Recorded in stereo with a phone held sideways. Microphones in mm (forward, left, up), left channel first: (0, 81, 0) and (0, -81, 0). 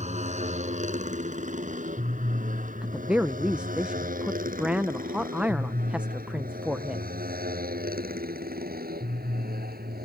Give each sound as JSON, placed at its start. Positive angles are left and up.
{"t": 0.0, "sound": "a motorcycle", "side_deg": -45}
{"t": 2.8, "sound": "a woman speaking", "side_deg": -5}